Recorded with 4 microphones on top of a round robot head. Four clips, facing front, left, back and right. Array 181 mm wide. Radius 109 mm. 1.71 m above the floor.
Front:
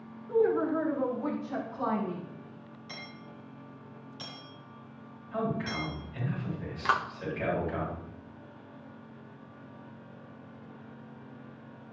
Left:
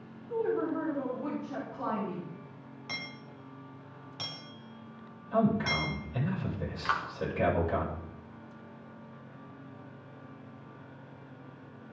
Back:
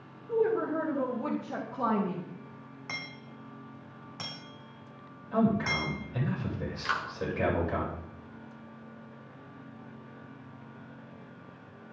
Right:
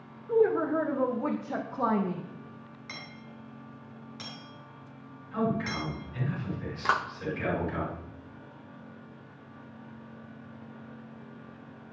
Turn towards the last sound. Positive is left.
turn(degrees=-70)